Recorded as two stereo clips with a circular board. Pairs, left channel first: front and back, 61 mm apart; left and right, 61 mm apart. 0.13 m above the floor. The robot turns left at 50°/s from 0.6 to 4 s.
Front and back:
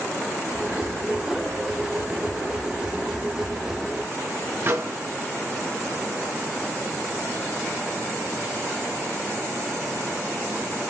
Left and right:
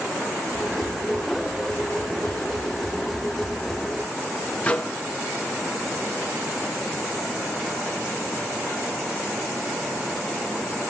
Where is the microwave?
150° left, 2 m.